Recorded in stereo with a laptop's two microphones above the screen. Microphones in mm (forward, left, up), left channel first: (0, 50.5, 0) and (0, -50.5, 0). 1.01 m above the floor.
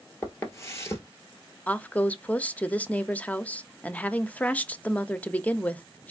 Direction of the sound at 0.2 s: 30° left (ahead or behind).